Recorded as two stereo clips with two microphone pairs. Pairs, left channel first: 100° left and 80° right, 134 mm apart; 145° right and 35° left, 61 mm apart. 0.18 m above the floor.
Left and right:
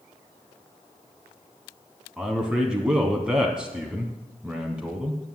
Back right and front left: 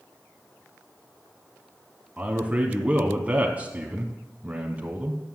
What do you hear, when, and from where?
2.2 s a man speaking: straight ahead, 1.1 m